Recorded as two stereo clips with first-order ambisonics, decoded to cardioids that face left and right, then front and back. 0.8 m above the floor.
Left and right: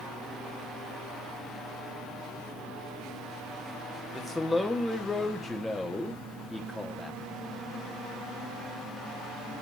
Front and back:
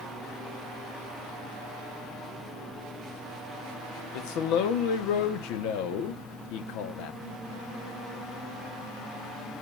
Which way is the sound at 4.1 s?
10° left.